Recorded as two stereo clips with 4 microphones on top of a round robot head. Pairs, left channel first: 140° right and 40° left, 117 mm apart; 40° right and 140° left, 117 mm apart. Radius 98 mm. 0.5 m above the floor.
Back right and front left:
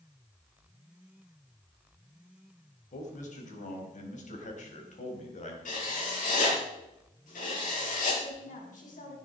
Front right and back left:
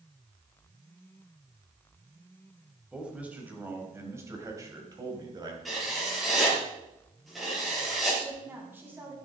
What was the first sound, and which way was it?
A man speaking, 135° right.